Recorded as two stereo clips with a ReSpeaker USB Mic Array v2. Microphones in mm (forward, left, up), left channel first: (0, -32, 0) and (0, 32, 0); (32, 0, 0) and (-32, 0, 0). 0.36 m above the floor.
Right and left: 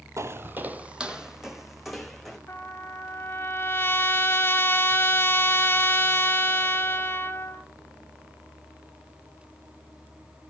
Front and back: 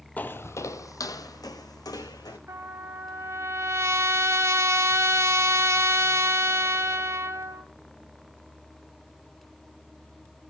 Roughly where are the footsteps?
Ahead left.